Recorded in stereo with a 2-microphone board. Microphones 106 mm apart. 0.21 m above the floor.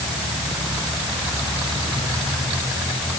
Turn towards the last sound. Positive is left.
No sound to turn to.